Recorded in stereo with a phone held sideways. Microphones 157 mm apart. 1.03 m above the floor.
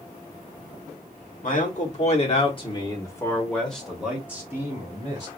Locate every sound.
1.4 s a man speaking: 55° left (ahead or behind), 1.4 m; by 5.3 s 25° right (ahead or behind), 1.6 m